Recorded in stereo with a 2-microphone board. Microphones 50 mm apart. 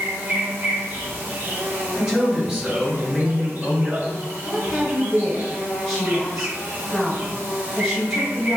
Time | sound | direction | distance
0.0 | an insect | 45° right (ahead or behind) | 0.8 m
1.9 | a man speaking | 10° right (ahead or behind) | 1.9 m
4.5 | a woman speaking | centre (ahead or behind) | 1.2 m